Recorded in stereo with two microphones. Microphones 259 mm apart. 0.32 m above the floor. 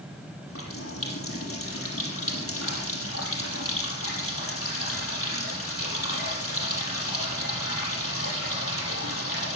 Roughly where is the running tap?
Left.